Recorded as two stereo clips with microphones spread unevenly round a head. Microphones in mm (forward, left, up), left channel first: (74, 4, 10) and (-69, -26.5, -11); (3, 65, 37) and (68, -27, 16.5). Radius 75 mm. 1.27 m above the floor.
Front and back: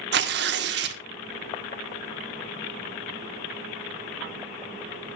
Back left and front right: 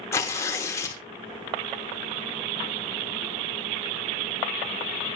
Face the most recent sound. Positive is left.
turn(degrees=-160)